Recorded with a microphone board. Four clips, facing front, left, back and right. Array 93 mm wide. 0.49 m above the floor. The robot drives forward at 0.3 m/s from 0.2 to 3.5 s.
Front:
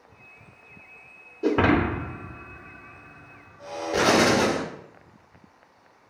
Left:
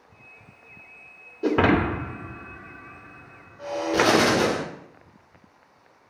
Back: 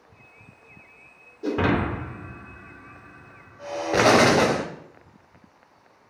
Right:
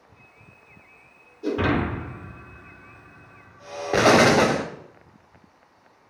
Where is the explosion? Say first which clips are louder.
Right 4 dB, back 3 dB; 120° right, 0.5 m.